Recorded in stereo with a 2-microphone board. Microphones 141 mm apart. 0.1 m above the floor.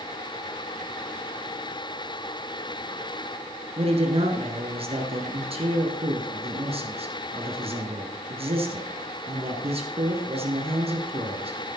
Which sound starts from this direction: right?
A man speaking, at 3.8 s.